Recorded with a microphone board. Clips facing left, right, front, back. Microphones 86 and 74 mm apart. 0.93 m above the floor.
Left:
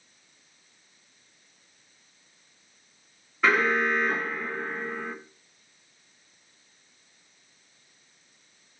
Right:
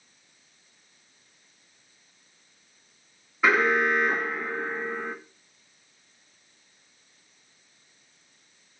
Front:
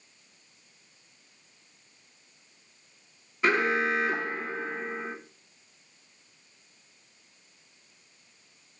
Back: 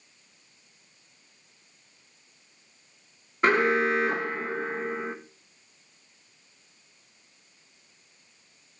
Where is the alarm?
170° right, 1.6 m.